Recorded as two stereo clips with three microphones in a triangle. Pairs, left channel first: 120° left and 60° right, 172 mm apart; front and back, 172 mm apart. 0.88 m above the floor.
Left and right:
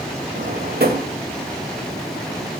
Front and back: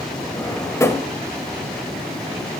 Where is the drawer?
75° right, 1.2 m.